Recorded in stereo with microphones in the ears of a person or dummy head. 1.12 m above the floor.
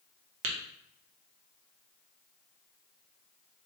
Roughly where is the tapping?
Right.